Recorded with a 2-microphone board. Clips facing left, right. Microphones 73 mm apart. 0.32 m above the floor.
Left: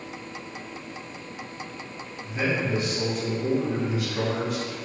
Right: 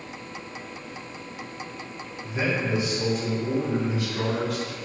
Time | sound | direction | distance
2.2 | a man speaking | 15° right (ahead or behind) | 1.3 m